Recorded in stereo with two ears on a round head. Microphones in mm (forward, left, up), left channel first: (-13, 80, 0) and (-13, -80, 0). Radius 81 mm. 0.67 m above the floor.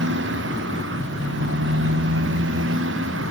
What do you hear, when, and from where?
0.0 s a motorcycle: 75° right (ahead or behind); by 3.3 s 80° right